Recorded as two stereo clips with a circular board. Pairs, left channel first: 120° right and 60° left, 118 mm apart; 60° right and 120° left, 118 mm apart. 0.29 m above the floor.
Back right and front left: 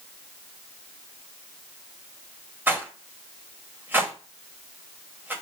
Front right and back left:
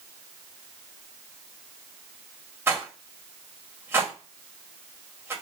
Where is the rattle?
95° left, 1.3 m.